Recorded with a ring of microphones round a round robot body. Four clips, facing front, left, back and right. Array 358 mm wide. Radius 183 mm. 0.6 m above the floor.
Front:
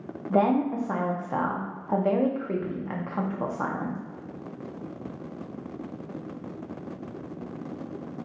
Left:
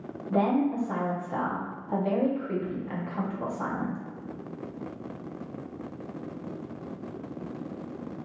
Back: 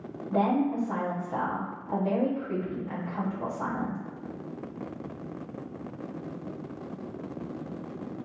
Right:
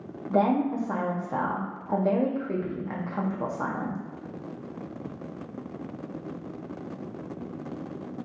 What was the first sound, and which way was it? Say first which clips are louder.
A woman speaking: right 1 dB, front 3 dB; 20° right.